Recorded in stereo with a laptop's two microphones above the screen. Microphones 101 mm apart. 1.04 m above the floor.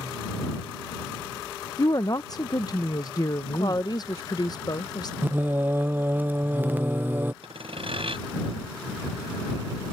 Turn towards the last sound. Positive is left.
turn(degrees=-65)  # may be behind; listen again after turning